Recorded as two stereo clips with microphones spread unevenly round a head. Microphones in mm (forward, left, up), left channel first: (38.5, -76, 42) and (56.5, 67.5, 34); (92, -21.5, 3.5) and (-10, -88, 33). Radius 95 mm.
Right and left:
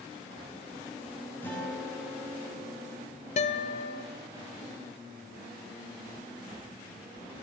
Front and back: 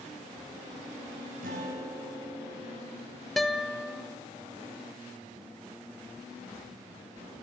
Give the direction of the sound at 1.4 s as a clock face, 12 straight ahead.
6 o'clock.